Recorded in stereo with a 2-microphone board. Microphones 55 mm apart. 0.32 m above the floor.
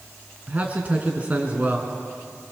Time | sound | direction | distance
0.5 | a man speaking | 30° right (ahead or behind) | 3 m